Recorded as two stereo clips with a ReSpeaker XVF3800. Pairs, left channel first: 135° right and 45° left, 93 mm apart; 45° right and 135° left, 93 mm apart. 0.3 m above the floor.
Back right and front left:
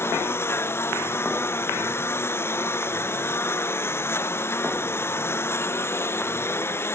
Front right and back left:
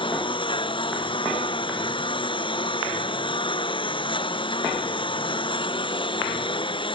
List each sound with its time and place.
0.0 s a lawn mower: 70° right